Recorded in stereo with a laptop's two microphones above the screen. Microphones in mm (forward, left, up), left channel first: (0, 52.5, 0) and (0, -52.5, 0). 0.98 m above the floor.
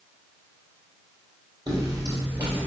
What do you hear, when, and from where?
1.7 s footsteps: 35° right (ahead or behind), 1.8 m; by 2.7 s 20° right (ahead or behind), 1.3 m